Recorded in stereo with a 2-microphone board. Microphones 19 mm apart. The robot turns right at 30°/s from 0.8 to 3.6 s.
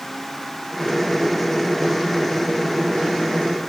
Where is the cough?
I don't hear a cough.